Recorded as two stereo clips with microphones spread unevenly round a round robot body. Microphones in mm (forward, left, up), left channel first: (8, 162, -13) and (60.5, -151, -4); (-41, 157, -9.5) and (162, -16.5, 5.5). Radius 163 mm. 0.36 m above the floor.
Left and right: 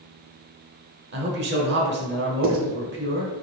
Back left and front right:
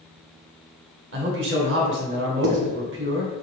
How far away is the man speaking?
About 1.1 m.